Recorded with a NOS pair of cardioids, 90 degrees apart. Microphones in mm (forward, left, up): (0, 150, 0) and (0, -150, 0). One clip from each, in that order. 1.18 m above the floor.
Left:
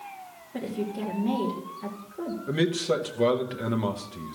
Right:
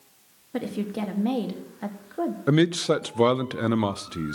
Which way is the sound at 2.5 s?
60° right.